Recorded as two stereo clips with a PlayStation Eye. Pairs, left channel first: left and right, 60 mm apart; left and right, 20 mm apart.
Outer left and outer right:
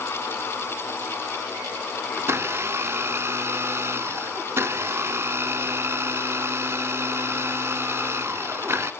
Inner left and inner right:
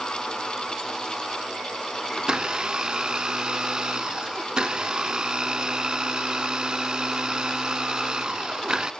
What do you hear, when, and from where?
2.2 s a blender: 45° right (ahead or behind), 0.6 m